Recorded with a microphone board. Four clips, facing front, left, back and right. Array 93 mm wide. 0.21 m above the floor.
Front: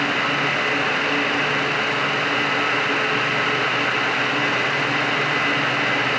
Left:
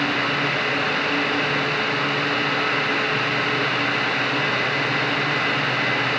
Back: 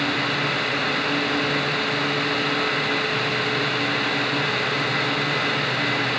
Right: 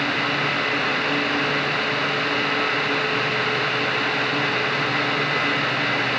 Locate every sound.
Only background noise.